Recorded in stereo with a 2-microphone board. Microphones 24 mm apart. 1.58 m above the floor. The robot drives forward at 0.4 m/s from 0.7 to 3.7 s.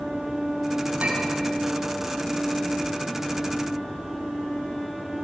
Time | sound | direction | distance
1.0 | a clink | 75° right (ahead or behind) | 6.5 m